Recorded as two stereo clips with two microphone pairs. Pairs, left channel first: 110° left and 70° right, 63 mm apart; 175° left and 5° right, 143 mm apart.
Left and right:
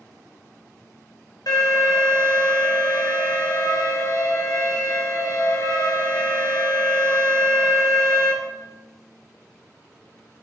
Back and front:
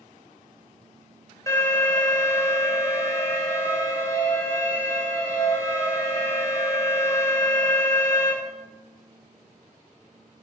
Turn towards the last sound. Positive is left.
turn(degrees=105)